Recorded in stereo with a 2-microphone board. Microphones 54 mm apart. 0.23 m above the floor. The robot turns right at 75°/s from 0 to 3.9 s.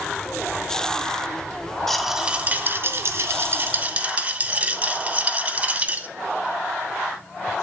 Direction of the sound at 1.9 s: 170° left.